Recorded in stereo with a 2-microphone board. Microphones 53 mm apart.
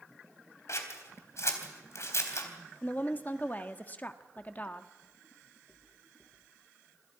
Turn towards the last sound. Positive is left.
turn(degrees=30)  # may be behind; listen again after turning